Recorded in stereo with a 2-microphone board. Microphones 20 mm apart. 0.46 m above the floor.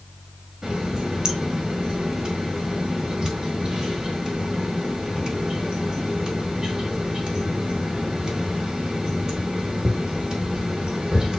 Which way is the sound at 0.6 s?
35° right (ahead or behind).